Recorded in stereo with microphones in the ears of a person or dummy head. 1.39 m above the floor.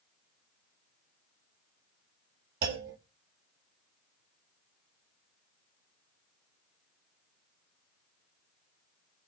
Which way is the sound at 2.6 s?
55° right (ahead or behind).